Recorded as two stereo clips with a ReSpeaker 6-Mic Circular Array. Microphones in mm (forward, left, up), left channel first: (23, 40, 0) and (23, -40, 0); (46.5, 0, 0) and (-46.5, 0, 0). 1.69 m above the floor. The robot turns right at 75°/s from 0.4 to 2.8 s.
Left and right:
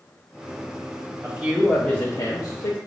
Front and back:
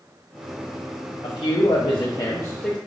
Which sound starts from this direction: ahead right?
A man speaking, at 1.2 s.